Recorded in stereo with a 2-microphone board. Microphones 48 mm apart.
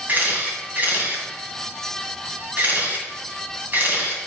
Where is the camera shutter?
35° right (ahead or behind), 2 m.